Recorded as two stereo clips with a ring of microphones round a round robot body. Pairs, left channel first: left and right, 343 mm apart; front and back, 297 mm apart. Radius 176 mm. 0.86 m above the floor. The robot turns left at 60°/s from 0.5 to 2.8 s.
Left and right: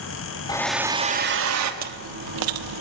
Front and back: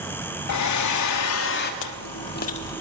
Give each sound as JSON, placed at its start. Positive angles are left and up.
{"t": 0.5, "sound": "a hair dryer", "azimuth_deg": 15, "distance_m": 2.0}
{"t": 1.8, "sound": "chewing", "azimuth_deg": -25, "distance_m": 1.3}